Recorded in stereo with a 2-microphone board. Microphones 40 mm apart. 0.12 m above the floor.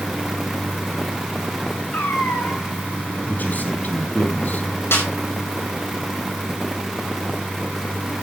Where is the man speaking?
50° left (ahead or behind), 3.5 m.